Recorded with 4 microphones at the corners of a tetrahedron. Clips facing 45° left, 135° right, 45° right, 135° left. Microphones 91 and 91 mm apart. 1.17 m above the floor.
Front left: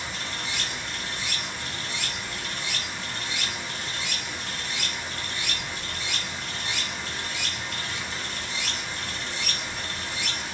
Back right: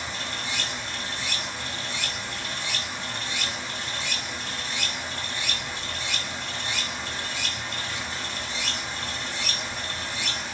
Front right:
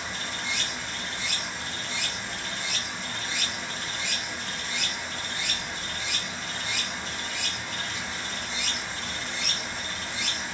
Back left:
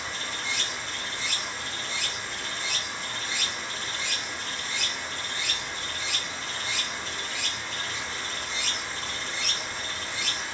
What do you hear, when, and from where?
0.0 s running water: 130° right, 1.4 m